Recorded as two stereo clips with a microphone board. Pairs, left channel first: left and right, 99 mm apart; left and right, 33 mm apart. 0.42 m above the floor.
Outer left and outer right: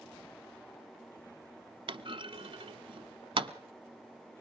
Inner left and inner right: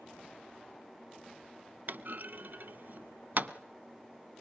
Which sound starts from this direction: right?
A clunk, at 1.9 s.